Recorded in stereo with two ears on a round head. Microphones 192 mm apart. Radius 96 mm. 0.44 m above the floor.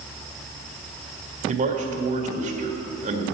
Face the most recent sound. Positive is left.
turn(degrees=-40)  # may be behind; listen again after turning